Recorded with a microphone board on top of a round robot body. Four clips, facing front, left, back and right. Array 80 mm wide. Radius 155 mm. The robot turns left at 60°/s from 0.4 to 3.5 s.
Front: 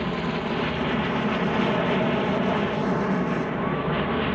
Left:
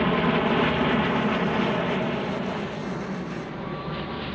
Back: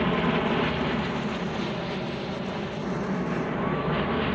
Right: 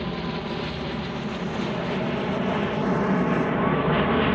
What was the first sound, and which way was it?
An aircraft, 105° left.